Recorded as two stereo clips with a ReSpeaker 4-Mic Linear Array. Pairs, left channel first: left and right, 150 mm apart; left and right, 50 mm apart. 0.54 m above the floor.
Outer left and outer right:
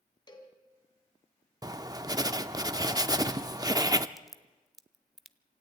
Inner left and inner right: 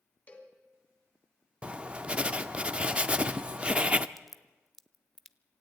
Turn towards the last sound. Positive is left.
turn(degrees=0)  # may be behind; listen again after turning